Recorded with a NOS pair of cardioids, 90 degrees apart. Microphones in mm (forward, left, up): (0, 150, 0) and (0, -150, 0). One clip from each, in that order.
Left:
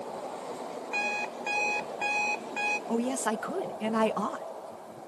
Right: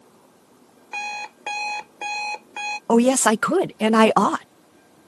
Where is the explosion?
I don't hear an explosion.